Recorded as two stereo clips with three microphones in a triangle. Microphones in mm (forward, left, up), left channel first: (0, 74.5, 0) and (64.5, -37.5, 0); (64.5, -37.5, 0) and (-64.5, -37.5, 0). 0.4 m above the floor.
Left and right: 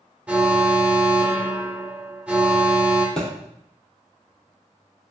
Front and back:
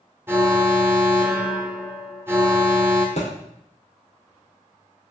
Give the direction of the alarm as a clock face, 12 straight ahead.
4 o'clock.